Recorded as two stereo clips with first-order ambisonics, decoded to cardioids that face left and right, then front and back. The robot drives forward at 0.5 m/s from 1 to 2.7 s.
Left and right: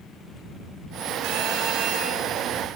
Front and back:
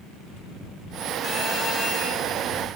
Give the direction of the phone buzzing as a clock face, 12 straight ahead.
2 o'clock.